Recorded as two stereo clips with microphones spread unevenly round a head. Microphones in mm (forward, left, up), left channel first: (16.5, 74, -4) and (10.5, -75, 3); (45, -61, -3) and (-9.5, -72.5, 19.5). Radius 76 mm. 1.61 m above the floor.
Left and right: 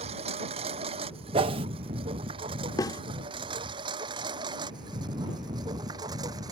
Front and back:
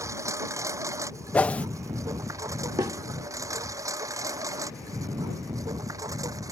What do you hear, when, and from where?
0.0 s a lawn mower: 145° right; by 6.5 s 160° right
1.3 s a whoosh: 70° right
2.8 s a snare drum: 155° left